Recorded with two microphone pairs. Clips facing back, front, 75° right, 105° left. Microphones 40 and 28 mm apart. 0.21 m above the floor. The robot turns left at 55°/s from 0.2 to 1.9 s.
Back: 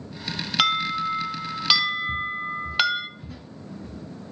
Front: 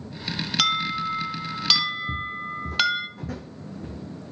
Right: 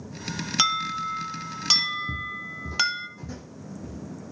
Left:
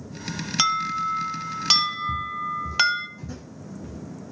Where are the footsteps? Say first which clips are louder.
Back 3 dB, left 5 dB; 60° right, 0.6 m; by 4.3 s 20° left, 1.2 m.